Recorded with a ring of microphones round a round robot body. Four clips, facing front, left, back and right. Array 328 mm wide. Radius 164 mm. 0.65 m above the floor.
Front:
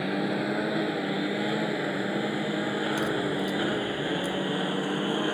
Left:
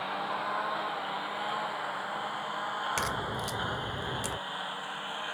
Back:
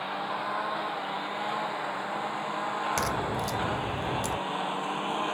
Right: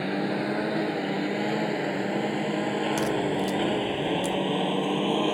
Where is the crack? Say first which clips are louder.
Right 8 dB, front 2 dB; 165° left.